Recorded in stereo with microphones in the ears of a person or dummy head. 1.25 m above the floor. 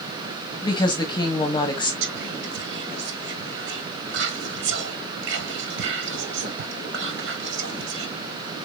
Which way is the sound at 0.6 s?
20° left (ahead or behind).